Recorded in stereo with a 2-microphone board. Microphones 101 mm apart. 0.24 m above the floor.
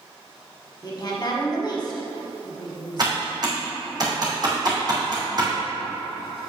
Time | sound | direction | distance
0.8 | a woman speaking | 45° left (ahead or behind) | 1.6 m
3.0 | typing on a keyboard | 45° right (ahead or behind) | 2.5 m